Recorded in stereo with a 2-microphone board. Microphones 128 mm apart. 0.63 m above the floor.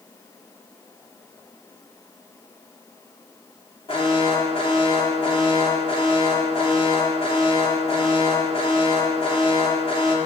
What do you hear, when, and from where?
3.9 s an alarm: 45° left (ahead or behind), 2.5 m